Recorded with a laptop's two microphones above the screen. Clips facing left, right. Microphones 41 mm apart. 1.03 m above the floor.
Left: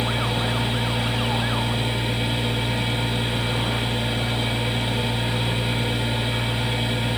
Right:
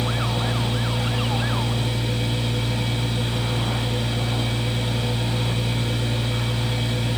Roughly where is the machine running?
Left.